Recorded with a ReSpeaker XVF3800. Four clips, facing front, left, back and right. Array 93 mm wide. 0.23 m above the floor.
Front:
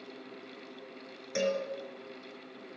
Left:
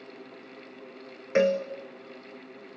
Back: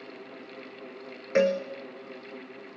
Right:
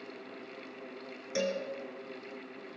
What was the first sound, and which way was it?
A cowbell, 135° left.